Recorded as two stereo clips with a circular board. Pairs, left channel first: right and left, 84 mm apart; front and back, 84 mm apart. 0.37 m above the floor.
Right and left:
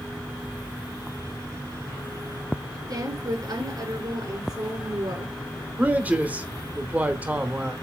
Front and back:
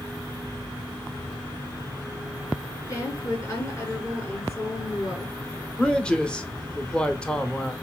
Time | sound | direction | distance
2.9 | a woman speaking | 50° left | 5.5 m
5.8 | a man speaking | 60° left | 0.9 m